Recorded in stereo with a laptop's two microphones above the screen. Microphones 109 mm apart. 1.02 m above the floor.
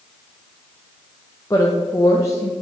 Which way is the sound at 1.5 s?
30° left (ahead or behind).